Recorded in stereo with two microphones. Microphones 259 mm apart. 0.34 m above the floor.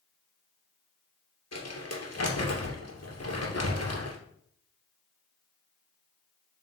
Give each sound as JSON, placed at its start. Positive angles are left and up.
{"t": 1.5, "sound": "crumpling", "side_deg": 70, "distance_m": 2.0}